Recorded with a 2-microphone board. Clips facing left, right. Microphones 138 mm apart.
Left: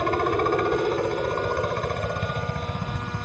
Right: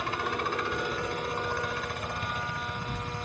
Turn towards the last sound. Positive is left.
turn(degrees=50)  # may be behind; listen again after turning